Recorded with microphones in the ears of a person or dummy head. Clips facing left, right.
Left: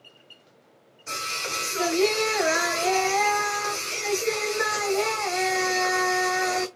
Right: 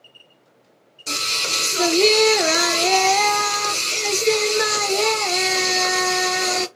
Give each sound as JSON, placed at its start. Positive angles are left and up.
{"t": 1.1, "sound": "singing", "side_deg": -40, "distance_m": 0.6}